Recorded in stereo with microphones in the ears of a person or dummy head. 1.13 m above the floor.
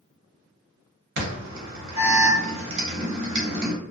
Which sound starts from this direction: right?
An alarm, at 1.2 s.